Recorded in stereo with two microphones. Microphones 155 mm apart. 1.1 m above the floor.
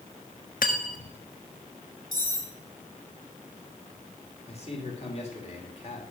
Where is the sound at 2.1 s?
70° left (ahead or behind), 2 m.